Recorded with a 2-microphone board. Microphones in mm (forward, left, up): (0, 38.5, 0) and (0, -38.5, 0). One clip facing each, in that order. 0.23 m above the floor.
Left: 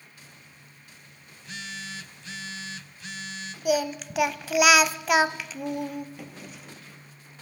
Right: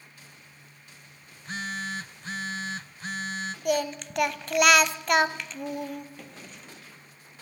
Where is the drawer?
5° left (ahead or behind), 2.5 m.